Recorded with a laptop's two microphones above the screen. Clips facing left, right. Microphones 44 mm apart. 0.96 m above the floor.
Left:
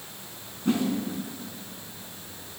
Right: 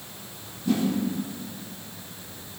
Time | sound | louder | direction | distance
0.7 | a whoosh | right 1 dB | 45° left (ahead or behind) | 3.5 m